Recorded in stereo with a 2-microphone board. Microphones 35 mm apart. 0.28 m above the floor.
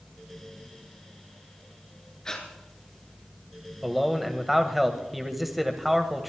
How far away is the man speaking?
About 1.2 m.